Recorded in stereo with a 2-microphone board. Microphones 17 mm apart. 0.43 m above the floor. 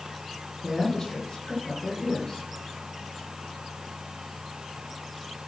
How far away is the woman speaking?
About 8.5 m.